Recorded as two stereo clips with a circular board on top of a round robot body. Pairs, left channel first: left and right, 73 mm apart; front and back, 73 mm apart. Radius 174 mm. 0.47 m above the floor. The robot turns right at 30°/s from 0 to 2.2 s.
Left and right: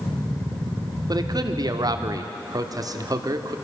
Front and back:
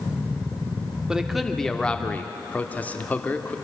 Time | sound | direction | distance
1.1 | a man speaking | 100° right | 1.8 m